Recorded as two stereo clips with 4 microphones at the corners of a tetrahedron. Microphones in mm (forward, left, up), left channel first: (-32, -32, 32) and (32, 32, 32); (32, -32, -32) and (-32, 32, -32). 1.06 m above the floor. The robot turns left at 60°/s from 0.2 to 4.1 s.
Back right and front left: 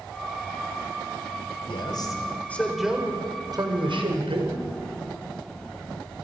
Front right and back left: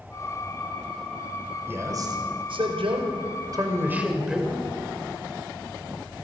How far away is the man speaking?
About 5 m.